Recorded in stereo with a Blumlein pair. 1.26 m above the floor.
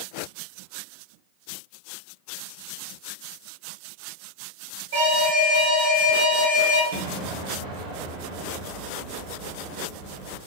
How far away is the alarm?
About 0.9 m.